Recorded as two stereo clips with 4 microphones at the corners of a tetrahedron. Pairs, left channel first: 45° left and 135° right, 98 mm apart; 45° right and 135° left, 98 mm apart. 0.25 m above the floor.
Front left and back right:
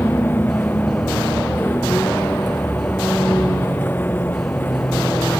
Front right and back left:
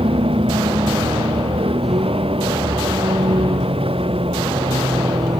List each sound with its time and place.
0.0 s a vehicle: 115° left